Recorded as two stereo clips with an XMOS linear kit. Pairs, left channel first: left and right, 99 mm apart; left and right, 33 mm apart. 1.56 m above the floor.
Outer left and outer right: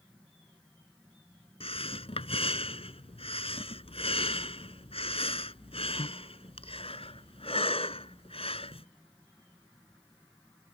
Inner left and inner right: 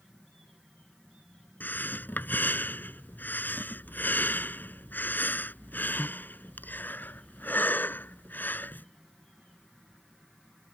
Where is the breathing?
70° left (ahead or behind).